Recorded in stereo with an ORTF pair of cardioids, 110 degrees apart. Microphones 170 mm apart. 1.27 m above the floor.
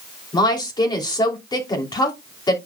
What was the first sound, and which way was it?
A woman speaking, 25° left.